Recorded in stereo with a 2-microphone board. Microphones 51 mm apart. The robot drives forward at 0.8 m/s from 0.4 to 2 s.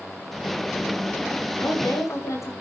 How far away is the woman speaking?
About 6.5 m.